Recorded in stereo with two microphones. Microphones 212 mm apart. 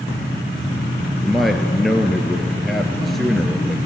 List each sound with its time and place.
1.2 s a man speaking: centre (ahead or behind), 1.5 m